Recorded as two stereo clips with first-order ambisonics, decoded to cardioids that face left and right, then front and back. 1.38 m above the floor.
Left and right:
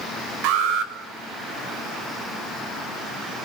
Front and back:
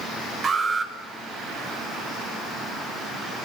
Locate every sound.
0.4 s an alarm: 100° right, 6 m